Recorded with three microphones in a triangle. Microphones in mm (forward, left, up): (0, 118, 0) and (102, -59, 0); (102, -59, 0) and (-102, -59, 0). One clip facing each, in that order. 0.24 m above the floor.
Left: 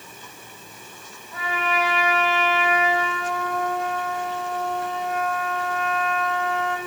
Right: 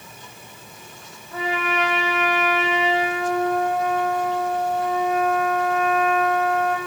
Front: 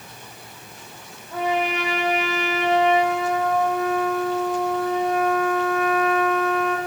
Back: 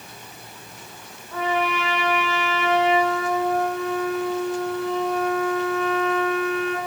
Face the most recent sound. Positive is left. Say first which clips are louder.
# right 2 dB, front 1 dB
turn(degrees=-70)